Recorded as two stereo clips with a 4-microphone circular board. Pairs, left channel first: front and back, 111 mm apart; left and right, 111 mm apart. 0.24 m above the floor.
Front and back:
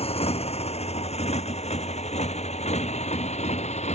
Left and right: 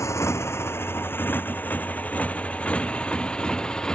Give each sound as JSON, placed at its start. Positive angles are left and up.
{"t": 0.0, "sound": "a motorcycle", "azimuth_deg": 25}